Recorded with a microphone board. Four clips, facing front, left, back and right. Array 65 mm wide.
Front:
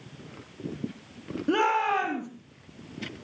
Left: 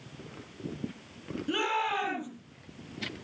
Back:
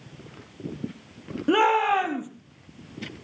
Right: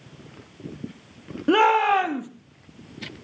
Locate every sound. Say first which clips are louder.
1.5 s a shout: right 13 dB, back 4 dB; 105° right, 3.5 m